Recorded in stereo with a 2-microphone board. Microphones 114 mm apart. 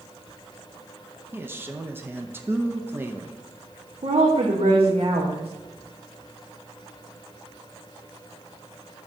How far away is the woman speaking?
About 1.0 m.